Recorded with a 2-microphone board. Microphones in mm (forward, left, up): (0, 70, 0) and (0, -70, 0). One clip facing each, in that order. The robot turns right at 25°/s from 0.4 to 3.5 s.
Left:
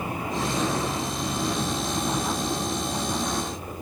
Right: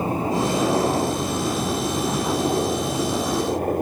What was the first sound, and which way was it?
A helicopter, 145° right.